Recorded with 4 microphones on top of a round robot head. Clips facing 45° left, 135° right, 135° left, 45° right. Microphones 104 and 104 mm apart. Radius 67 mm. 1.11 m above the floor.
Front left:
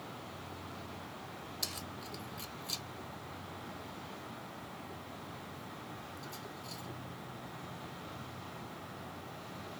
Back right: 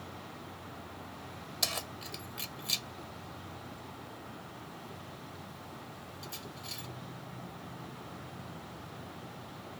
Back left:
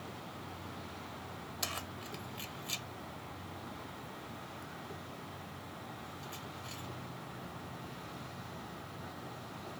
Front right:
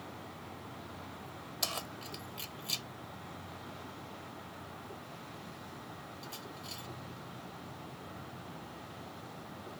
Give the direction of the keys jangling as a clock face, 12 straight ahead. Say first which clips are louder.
Back right 4 dB, front right 3 dB; 4 o'clock.